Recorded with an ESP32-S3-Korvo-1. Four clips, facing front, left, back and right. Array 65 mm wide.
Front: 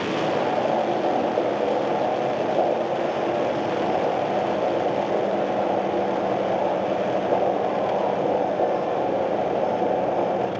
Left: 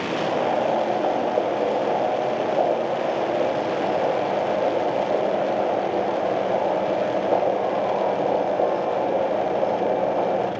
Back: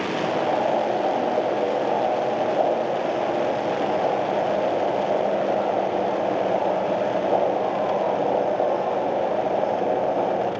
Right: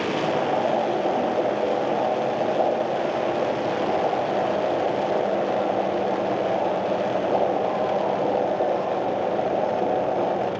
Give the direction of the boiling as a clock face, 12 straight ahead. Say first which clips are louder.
Left 3 dB, even; 9 o'clock.